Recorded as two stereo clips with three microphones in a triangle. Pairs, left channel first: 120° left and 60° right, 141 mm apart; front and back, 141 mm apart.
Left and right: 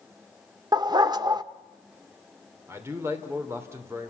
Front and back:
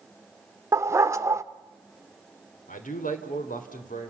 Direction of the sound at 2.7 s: 10° left.